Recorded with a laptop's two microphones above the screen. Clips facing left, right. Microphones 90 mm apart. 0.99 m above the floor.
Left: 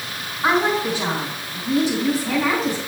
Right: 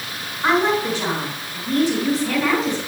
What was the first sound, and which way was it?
A woman speaking, 5° left (ahead or behind).